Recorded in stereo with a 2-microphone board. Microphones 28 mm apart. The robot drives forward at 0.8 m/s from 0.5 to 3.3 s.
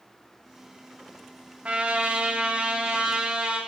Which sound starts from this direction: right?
A trumpet, at 1.6 s.